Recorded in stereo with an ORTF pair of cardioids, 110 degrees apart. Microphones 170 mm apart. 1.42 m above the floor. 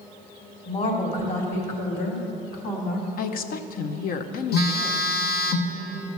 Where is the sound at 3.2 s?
60° left, 0.9 m.